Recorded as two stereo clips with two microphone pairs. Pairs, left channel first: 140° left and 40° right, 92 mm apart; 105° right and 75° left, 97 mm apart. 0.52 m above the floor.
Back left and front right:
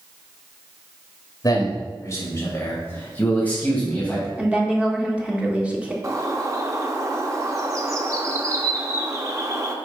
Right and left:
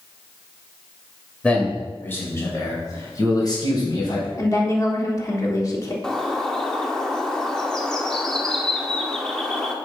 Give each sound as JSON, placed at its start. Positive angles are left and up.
{"t": 1.4, "sound": "a man speaking", "azimuth_deg": 180, "distance_m": 2.5}
{"t": 4.4, "sound": "a woman speaking", "azimuth_deg": -105, "distance_m": 1.4}
{"t": 6.0, "sound": "a bird", "azimuth_deg": -25, "distance_m": 1.0}